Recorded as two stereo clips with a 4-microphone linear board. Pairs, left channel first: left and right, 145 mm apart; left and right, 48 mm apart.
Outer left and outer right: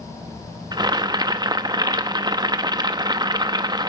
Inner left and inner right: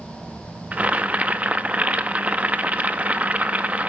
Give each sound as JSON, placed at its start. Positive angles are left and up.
{"t": 0.7, "sound": "boiling", "side_deg": -30, "distance_m": 0.8}